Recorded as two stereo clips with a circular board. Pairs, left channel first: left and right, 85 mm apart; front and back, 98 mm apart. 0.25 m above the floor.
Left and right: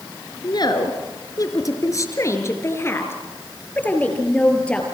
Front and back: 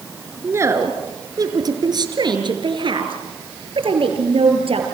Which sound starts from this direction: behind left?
A woman speaking, at 0.4 s.